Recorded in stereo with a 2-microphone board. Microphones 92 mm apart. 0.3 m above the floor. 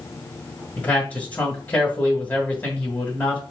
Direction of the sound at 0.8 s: 20° left (ahead or behind).